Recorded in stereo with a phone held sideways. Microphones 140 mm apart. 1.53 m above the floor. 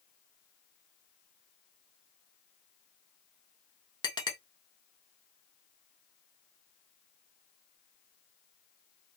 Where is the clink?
35° left (ahead or behind), 0.9 m.